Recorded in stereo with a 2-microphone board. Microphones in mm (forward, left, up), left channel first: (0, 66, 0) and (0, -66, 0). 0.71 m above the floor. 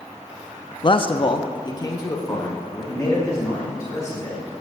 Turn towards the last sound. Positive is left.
turn(degrees=25)  # may be behind; listen again after turning